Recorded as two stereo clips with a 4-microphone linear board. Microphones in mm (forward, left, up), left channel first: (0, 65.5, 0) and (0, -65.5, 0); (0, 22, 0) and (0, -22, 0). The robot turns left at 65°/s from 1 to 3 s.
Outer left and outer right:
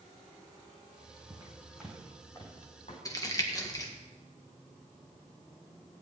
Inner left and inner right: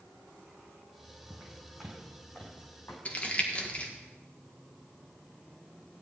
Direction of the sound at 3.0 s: 25° left (ahead or behind).